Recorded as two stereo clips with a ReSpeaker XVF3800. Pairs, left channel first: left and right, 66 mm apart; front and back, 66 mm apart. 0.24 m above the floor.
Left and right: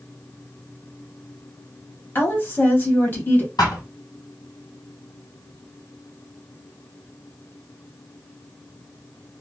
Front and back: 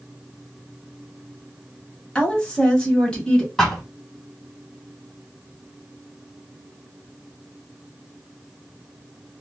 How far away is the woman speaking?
About 1.1 m.